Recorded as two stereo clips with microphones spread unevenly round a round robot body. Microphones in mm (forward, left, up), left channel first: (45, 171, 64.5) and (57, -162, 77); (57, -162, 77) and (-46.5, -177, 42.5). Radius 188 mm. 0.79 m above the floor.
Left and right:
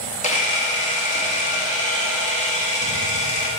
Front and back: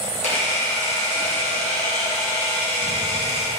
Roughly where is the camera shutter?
Ahead left.